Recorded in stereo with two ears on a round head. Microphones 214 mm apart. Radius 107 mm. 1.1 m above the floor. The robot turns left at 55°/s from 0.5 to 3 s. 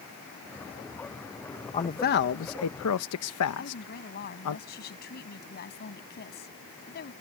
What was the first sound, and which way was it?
A man speaking, 25° left (ahead or behind).